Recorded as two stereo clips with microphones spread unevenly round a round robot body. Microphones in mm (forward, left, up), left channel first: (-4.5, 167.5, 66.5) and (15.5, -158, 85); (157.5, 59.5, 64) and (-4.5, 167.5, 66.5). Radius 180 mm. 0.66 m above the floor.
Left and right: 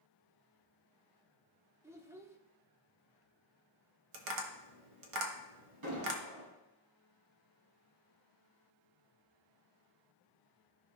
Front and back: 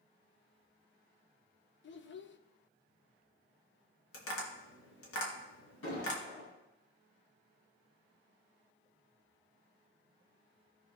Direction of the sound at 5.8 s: 60° right.